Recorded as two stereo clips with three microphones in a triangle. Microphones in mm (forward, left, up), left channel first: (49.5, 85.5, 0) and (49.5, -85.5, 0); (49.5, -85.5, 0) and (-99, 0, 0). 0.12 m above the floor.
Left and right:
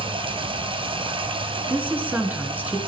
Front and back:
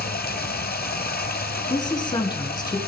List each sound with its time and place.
0.0 s running water: 35° right, 1.1 m
1.7 s a woman speaking: 25° right, 1.5 m